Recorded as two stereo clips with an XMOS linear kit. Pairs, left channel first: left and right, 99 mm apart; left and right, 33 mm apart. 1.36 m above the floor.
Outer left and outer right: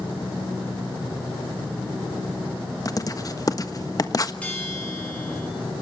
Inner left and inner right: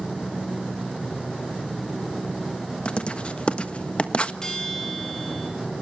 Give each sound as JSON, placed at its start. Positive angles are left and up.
{"t": 2.9, "sound": "writing", "side_deg": 35, "distance_m": 1.3}
{"t": 4.4, "sound": "a bell", "side_deg": 15, "distance_m": 5.5}